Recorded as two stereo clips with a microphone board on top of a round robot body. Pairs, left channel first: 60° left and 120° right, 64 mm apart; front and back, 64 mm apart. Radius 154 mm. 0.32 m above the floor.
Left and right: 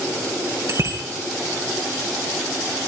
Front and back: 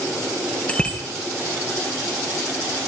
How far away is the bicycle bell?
About 6 m.